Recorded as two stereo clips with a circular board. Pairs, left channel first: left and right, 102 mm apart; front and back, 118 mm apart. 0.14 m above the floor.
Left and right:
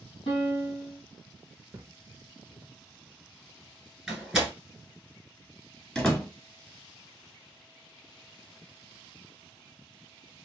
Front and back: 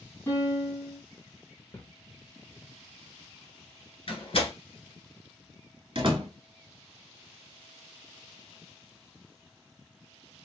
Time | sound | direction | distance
0.3 | a piano | 65° left | 1.8 m
1.7 | a thud | 50° right | 0.6 m
4.1 | a door slam | 5° right | 1.2 m
6.0 | a door slam | 165° left | 1.2 m